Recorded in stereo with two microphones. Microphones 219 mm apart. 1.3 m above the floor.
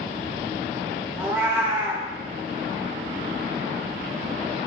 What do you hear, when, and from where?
1.2 s a cat meowing: 10° right (ahead or behind), 0.6 m